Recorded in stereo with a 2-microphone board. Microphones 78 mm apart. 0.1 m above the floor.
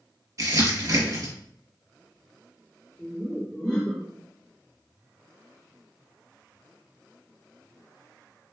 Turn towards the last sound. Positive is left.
turn(degrees=10)  # may be behind; listen again after turning